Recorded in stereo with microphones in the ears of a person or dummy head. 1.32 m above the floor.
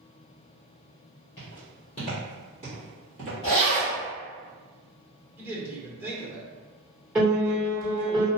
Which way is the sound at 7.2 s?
10° right (ahead or behind).